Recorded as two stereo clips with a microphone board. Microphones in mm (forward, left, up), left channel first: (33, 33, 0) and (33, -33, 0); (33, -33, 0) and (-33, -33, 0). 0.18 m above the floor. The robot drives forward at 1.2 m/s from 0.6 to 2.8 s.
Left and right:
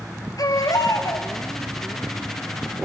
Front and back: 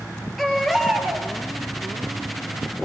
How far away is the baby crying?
About 1.7 m.